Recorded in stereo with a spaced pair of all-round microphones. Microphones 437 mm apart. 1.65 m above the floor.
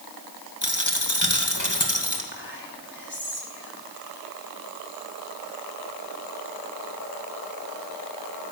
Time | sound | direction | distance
0.6 | a dropped coin | 45° left (ahead or behind) | 2 m
2.3 | whispering | 25° left (ahead or behind) | 3 m